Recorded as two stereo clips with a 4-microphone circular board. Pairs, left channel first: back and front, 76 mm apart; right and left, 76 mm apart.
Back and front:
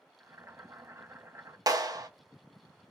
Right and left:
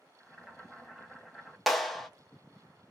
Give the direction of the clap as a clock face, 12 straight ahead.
12 o'clock.